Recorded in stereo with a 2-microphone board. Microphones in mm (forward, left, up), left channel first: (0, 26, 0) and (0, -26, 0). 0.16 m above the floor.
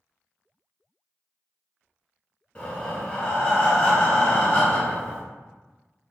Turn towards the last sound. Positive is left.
turn(degrees=20)  # may be behind; listen again after turning